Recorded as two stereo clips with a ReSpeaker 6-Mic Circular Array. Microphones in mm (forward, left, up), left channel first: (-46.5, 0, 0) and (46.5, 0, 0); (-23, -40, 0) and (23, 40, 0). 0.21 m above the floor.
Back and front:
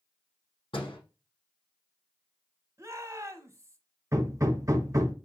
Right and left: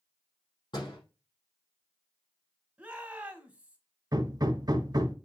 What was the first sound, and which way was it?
A door slam, 155° right.